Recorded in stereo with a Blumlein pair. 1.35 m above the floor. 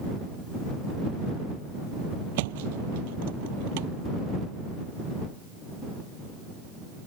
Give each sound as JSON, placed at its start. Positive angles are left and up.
{"t": 2.4, "sound": "a thud", "azimuth_deg": -50}